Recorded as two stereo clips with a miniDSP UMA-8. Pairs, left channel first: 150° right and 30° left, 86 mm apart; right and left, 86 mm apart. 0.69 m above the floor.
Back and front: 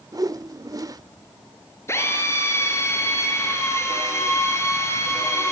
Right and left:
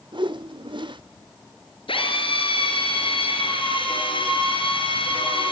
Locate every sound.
0.1 s a whoosh: 70° left, 0.6 m
1.9 s a drill: 95° right, 5.5 m